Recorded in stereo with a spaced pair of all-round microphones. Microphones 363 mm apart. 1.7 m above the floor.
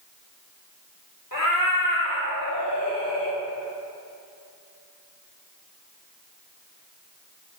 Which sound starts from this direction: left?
A cat meowing, at 1.3 s.